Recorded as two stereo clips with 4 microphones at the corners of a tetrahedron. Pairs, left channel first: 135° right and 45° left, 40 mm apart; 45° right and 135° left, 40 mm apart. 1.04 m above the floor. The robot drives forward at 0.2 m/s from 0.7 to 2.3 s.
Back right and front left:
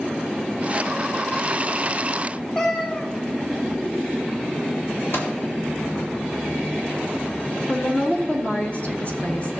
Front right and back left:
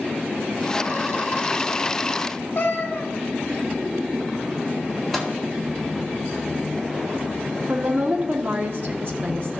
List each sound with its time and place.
2.5 s a cat meowing: 70° right, 1.3 m
5.1 s a microwave: 130° right, 1.7 m
7.7 s a woman speaking: 175° left, 1.2 m